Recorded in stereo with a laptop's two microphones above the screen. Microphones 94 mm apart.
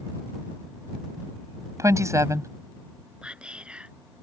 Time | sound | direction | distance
1.8 | a woman speaking | 35° right (ahead or behind) | ?
3.2 | whispering | 10° right (ahead or behind) | ?